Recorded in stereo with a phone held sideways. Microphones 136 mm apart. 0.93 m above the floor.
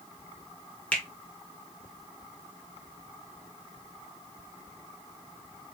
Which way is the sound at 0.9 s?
10° left (ahead or behind).